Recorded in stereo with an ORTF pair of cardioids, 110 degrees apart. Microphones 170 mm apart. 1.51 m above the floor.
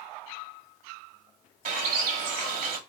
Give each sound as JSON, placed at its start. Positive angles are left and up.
{"t": 1.6, "sound": "a bird", "azimuth_deg": -55, "distance_m": 1.4}